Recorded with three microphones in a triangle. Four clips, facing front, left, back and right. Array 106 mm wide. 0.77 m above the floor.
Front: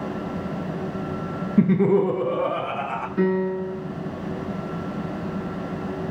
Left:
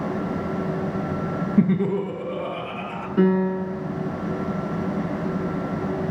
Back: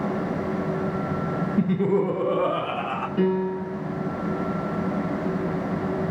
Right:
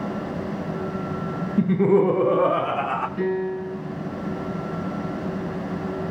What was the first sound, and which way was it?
Laughter, 35° left.